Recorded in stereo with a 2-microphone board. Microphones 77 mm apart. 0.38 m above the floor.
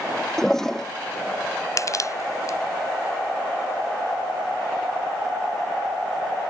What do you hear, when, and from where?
0.4 s a toilet flushing: 5° left (ahead or behind)
1.8 s crushing: 45° left (ahead or behind)